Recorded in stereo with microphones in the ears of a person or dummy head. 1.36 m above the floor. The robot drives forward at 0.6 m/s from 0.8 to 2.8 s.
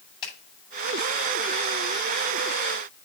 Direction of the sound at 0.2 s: 30° left (ahead or behind).